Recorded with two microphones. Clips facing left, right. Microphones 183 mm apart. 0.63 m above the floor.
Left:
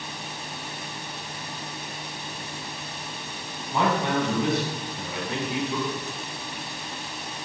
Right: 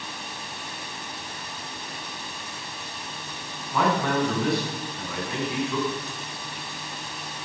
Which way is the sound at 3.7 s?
20° left (ahead or behind).